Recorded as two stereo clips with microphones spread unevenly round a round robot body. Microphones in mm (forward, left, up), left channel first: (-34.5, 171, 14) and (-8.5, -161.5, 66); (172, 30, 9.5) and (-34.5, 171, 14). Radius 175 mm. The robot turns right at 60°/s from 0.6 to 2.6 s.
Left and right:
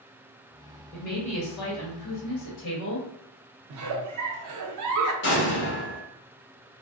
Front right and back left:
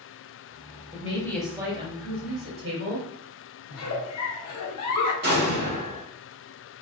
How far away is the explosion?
About 1.1 m.